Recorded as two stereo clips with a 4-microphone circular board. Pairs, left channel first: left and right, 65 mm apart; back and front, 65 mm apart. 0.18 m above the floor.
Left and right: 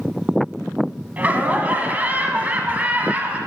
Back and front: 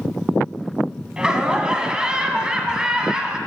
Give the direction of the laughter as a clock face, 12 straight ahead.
2 o'clock.